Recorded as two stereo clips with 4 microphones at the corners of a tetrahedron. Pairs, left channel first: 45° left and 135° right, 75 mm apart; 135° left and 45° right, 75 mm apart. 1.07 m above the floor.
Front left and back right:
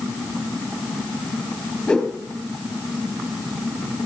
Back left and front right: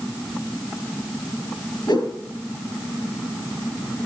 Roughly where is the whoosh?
Behind left.